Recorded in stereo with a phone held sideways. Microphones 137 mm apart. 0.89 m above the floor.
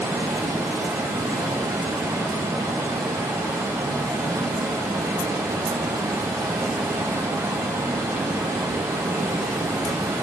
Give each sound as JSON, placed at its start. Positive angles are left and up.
{"t": 0.0, "sound": "running water", "side_deg": -25, "distance_m": 2.5}